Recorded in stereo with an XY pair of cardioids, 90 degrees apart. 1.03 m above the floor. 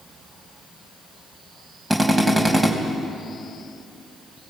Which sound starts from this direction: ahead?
A drill, at 1.9 s.